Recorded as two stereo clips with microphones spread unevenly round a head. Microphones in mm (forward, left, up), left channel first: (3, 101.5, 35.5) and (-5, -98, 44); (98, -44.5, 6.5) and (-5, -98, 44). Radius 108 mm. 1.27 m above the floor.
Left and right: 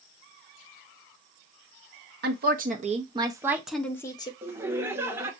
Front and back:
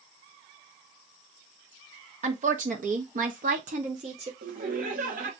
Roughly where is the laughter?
Behind.